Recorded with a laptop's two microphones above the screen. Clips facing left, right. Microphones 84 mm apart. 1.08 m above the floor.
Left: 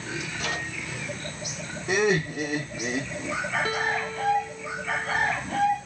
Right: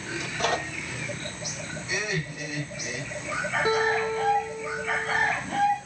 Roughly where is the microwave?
Right.